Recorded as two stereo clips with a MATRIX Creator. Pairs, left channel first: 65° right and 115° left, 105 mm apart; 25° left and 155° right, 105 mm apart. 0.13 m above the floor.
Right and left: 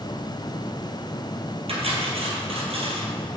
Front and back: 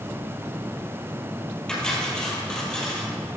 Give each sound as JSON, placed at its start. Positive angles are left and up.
{"t": 1.7, "sound": "cutlery clinking", "azimuth_deg": 105, "distance_m": 2.0}